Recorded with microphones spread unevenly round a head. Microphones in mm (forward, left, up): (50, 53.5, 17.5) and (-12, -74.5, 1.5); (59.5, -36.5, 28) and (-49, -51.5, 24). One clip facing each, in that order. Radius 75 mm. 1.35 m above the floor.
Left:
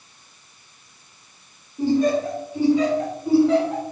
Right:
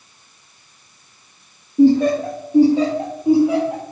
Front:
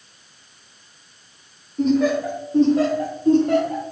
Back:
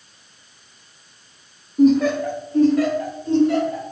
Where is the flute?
No flute in this recording.